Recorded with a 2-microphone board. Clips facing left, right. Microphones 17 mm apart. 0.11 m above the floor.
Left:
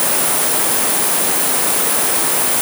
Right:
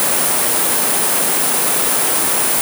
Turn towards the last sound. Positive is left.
No sound to turn to.